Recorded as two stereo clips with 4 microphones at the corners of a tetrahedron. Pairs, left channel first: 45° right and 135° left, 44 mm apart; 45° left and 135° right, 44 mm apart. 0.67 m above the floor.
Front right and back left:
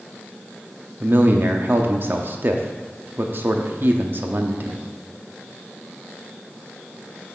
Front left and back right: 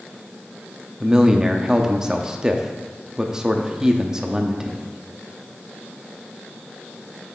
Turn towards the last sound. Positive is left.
turn(degrees=150)